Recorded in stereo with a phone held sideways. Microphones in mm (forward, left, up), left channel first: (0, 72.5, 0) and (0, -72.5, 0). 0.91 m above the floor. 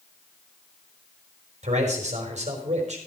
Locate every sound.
1.6 s a man speaking: 50° right (ahead or behind), 4 m